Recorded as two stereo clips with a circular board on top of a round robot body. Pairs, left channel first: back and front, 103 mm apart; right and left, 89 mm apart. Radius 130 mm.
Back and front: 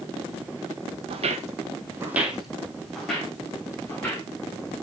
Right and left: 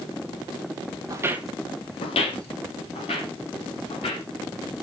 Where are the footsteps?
35° left, 0.8 m; by 4.2 s 100° right, 3 m.